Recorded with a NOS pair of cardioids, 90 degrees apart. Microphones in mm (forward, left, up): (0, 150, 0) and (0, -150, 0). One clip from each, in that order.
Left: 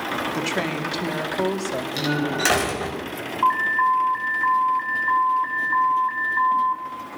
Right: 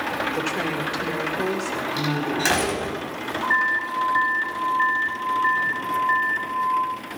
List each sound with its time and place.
0.3 s a woman speaking: 35° left, 2.5 m
2.0 s a door slam: 30° left, 4.5 m
3.4 s an alarm: 60° left, 3.5 m